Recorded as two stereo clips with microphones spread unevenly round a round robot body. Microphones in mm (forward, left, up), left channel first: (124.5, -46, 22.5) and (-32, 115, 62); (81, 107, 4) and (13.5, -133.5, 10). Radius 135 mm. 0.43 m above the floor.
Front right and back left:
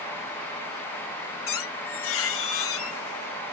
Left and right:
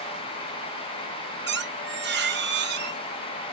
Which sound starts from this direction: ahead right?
A squeak, at 1.5 s.